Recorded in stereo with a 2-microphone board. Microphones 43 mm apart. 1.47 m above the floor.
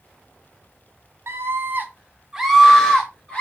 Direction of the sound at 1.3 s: 65° right (ahead or behind).